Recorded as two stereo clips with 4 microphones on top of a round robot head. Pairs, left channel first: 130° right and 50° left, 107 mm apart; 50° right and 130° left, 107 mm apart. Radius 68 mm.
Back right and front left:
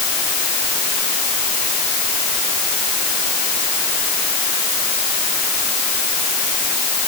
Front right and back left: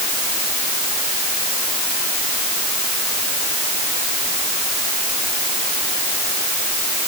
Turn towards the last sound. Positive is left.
No sound to turn to.